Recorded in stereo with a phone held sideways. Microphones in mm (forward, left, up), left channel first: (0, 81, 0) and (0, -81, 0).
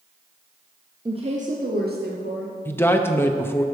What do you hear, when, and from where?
1.1 s a woman speaking: 30° right (ahead or behind), 0.9 m; by 2.5 s 85° right, 1.7 m
2.6 s a man speaking: 15° left (ahead or behind), 0.6 m